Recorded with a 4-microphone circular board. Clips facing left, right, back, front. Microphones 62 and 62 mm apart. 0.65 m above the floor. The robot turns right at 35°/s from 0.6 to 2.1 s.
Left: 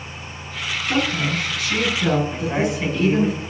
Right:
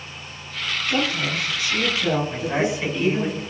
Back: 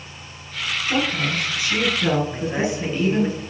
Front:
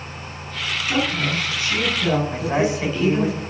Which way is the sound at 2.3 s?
Straight ahead.